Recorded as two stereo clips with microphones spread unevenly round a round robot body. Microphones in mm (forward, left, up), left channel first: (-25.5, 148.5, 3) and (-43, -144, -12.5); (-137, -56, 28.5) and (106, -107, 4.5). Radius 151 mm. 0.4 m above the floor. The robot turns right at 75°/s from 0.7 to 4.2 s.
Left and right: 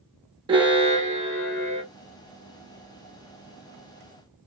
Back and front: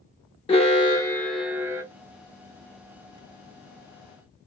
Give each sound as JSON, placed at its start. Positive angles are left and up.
{"t": 0.5, "sound": "an alarm", "azimuth_deg": -140, "distance_m": 1.0}